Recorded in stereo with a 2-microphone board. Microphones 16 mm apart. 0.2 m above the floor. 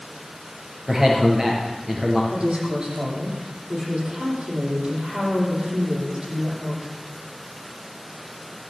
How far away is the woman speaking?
About 8 m.